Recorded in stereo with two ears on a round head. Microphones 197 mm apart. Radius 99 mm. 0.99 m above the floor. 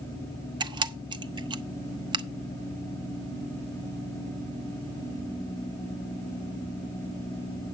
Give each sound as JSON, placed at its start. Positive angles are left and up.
{"t": 0.6, "sound": "a camera shutter", "side_deg": -20, "distance_m": 0.6}